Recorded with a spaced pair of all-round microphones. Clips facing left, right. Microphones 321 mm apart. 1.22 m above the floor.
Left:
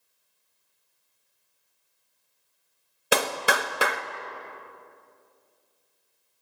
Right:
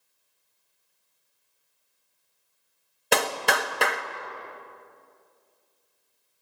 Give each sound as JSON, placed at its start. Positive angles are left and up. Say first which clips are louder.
{"t": 3.1, "sound": "a clap", "louder": "even", "side_deg": 5, "distance_m": 1.0}